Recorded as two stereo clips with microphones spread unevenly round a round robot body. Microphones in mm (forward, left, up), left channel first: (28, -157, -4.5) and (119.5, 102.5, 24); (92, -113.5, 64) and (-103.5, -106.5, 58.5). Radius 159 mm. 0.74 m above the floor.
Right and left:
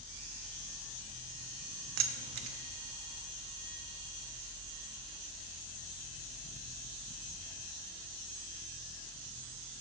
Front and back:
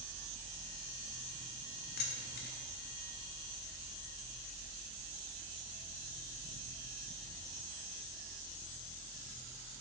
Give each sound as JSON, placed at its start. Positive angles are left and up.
{"t": 2.0, "sound": "keys jangling", "azimuth_deg": 35, "distance_m": 0.5}